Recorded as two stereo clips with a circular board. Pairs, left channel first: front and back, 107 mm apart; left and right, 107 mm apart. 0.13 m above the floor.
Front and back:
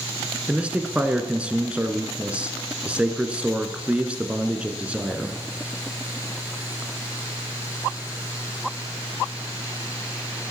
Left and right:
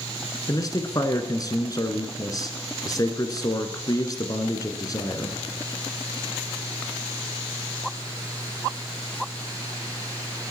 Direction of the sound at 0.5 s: 110° left.